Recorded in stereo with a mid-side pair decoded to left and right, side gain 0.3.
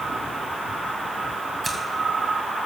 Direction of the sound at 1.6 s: 35° right.